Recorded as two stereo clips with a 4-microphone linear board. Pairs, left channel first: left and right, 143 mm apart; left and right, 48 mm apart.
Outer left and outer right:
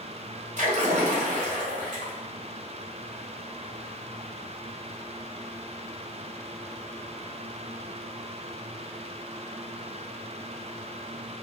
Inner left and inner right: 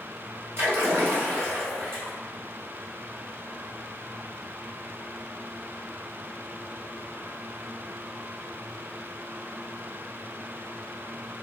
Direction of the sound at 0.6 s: 55° right (ahead or behind).